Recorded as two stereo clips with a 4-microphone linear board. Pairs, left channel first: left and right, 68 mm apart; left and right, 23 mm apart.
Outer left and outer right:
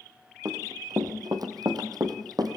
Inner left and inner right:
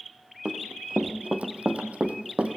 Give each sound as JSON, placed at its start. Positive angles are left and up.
{"t": 0.5, "sound": "running footsteps", "side_deg": -60, "distance_m": 2.5}